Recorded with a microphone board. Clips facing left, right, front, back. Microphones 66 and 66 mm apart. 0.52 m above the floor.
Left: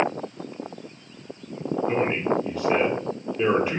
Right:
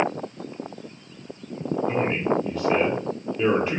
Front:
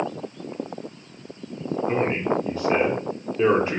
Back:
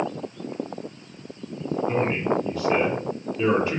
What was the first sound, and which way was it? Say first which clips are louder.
A man speaking: even, front 1 dB; 5° left.